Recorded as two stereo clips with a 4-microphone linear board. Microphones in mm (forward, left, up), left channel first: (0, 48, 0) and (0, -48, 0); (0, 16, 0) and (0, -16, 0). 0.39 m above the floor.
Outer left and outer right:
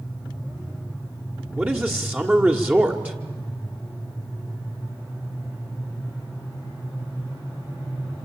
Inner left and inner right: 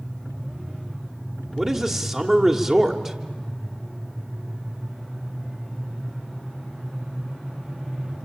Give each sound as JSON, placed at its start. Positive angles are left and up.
{"t": 1.6, "sound": "a man speaking", "side_deg": -20, "distance_m": 1.4}